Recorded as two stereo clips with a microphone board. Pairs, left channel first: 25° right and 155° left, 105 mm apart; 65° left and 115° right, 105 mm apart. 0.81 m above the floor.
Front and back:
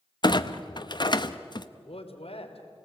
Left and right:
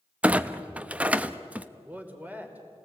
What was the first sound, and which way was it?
A clunk, 40° right.